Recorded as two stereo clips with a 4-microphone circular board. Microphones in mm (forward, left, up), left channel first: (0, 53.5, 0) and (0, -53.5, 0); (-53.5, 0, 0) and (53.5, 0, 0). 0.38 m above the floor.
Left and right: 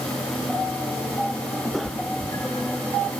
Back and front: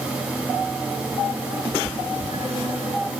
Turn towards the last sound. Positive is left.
turn(degrees=30)